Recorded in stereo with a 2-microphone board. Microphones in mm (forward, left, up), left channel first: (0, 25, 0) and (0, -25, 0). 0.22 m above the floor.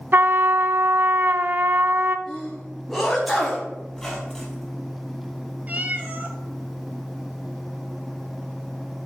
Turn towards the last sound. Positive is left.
turn(degrees=-30)  # may be behind; listen again after turning